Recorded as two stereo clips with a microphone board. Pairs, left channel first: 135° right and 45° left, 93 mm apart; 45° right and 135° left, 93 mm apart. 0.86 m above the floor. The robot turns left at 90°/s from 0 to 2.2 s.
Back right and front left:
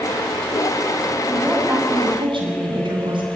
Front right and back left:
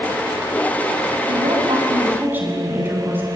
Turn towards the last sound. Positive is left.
turn(degrees=65)